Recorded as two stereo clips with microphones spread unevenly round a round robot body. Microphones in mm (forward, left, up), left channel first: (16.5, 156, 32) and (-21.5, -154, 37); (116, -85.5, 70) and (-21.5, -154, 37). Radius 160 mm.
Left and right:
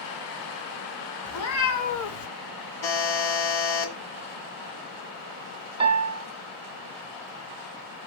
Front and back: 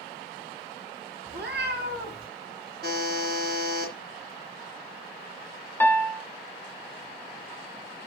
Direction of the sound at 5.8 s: 30° right.